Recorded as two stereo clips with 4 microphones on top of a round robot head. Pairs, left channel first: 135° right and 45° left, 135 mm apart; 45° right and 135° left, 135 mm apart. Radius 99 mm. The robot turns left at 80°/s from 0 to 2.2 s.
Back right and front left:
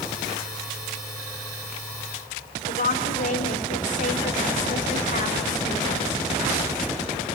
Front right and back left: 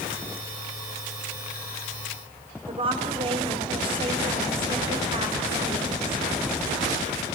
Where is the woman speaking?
170° right, 4.5 m.